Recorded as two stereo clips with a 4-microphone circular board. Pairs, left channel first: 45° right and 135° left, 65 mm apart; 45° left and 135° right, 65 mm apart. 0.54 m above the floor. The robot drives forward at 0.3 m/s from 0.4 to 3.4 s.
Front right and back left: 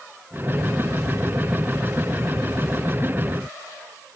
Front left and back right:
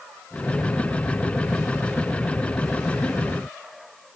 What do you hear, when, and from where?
Only background noise.